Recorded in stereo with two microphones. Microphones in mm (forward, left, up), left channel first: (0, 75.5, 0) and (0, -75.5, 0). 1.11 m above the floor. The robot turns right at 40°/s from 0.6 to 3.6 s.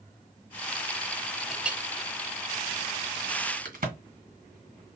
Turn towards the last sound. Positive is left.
turn(degrees=-65)  # may be behind; listen again after turning